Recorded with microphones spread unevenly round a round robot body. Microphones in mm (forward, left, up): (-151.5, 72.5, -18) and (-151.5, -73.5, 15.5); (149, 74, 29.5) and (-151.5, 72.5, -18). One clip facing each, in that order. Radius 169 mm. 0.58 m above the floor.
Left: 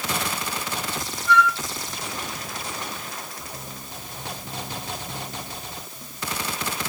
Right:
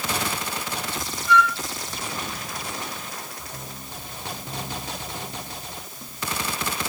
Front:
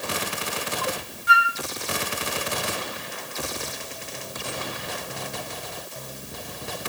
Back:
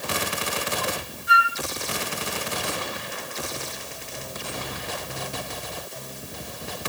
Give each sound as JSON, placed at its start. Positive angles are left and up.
{"t": 1.3, "sound": "a flute", "azimuth_deg": 25, "distance_m": 3.5}